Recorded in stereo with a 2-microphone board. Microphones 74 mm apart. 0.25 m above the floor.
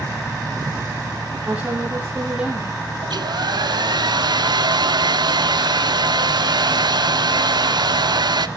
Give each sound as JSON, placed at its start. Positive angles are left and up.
{"t": 1.5, "sound": "a woman speaking", "side_deg": -20, "distance_m": 7.5}
{"t": 3.0, "sound": "a hair dryer", "side_deg": -80, "distance_m": 0.7}